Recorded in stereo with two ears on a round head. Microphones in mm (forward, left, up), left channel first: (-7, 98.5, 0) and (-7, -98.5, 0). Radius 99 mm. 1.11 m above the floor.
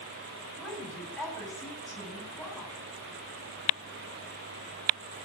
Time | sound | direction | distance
0.6 | a woman speaking | 5° left (ahead or behind) | 8 m